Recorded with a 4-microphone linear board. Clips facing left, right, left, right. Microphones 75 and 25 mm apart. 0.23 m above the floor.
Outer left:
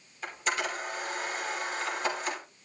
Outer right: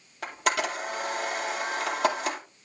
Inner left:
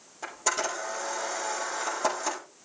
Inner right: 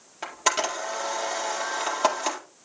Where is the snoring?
No snoring in this recording.